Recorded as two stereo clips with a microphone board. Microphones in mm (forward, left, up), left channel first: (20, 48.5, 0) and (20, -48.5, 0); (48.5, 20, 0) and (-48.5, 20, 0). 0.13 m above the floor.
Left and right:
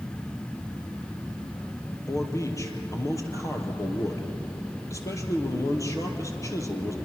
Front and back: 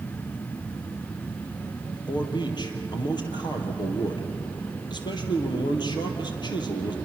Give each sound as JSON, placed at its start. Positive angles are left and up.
{"t": 2.1, "sound": "a man speaking", "azimuth_deg": 35, "distance_m": 3.0}